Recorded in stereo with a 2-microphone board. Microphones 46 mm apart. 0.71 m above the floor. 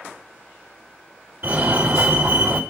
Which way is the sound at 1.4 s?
50° right (ahead or behind).